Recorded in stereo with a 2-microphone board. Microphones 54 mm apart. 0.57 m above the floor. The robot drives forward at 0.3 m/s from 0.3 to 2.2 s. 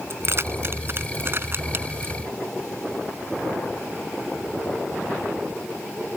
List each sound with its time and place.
0.1 s keys jangling: 50° right (ahead or behind); by 2.1 s 45° right (ahead or behind)